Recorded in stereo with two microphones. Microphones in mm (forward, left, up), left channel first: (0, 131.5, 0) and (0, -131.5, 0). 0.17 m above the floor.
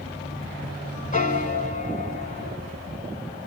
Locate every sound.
1.1 s a piano: 30° left (ahead or behind), 0.9 m